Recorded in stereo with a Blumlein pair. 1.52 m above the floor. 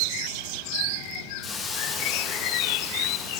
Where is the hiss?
15° left, 1.0 m.